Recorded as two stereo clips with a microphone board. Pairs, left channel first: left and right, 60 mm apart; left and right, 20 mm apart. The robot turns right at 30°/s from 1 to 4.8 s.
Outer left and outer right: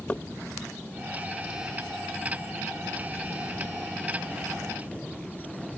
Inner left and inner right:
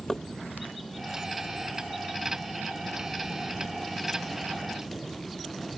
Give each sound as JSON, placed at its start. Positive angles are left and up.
{"t": 0.1, "sound": "knocking", "side_deg": 25}